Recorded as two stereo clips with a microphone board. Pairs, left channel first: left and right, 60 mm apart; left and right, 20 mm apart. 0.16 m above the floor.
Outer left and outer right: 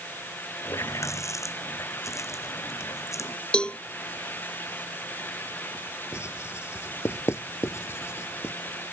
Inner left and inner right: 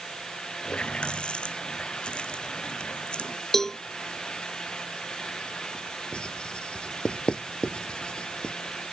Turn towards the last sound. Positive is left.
turn(degrees=50)  # may be behind; listen again after turning